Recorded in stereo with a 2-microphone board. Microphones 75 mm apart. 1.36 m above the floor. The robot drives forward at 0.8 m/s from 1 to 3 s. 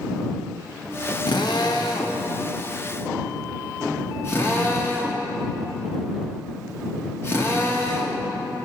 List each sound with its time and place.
1.3 s a drill: 70° left (ahead or behind), 1.2 m; by 8.2 s 35° left (ahead or behind), 1.9 m